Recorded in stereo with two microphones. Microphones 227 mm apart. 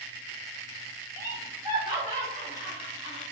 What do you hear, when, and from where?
1.2 s laughter: 10° right (ahead or behind), 1.3 m; by 3.2 s 40° right (ahead or behind), 1.6 m